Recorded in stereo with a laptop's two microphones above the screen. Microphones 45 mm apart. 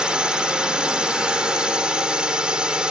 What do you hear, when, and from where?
0.0 s a drone: 20° right (ahead or behind)